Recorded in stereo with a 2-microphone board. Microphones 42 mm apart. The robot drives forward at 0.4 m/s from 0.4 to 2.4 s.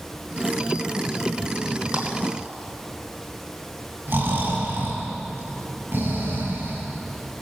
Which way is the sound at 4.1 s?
60° right (ahead or behind).